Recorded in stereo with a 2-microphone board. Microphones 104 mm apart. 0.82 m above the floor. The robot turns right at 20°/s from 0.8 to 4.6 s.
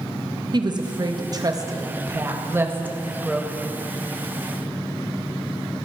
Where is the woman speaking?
45° right (ahead or behind), 0.6 m; by 3.7 s 5° right (ahead or behind), 0.6 m.